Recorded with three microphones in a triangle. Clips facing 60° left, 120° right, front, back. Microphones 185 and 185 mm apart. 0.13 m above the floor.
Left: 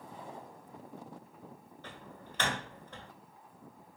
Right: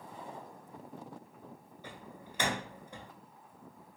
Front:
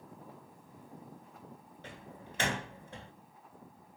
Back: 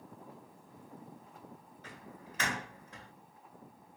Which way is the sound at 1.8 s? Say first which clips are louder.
Right 1 dB, front 2 dB; 45° right.